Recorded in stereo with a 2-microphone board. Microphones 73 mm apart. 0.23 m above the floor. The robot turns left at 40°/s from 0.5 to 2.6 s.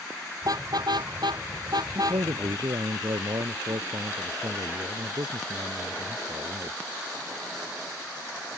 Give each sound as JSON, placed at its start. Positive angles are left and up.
{"t": 0.4, "sound": "a car horn", "side_deg": -60}
{"t": 1.9, "sound": "a man speaking", "side_deg": -75}